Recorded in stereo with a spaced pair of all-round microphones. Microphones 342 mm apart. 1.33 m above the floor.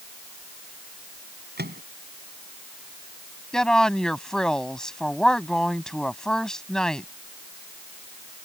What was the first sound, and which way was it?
A microwave, 30° right (ahead or behind).